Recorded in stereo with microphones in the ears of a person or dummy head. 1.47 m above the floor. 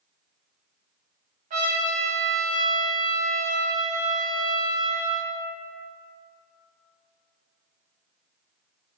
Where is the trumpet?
40° right (ahead or behind), 0.9 m.